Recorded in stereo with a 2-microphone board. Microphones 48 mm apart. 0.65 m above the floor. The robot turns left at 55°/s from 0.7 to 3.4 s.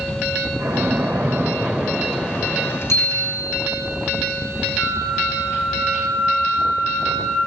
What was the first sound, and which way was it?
A splash, 115° right.